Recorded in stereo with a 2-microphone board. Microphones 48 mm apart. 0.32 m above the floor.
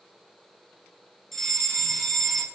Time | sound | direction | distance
1.3 | a fire alarm | 5° left (ahead or behind) | 5 m